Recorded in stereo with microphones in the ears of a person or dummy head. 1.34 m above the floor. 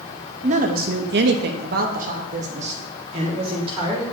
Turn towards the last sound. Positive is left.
turn(degrees=-30)  # may be behind; listen again after turning